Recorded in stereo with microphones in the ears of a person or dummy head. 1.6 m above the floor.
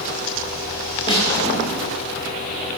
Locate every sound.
1.1 s a snare drum: 30° left (ahead or behind), 3 m